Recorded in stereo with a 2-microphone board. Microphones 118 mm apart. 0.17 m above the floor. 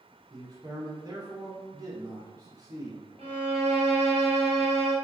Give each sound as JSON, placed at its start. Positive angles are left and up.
{"t": 0.3, "sound": "a man speaking", "side_deg": -35, "distance_m": 1.5}
{"t": 3.2, "sound": "a violin", "side_deg": -65, "distance_m": 1.5}